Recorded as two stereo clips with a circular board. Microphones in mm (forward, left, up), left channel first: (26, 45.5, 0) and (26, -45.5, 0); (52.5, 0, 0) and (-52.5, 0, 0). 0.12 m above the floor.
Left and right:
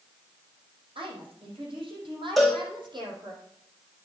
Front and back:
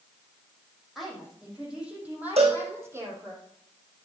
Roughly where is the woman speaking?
Right.